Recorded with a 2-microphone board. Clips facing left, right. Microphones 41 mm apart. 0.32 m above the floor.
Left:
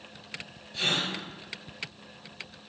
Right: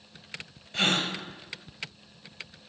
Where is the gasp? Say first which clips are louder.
Right 3 dB; 55° right (ahead or behind), 0.6 m.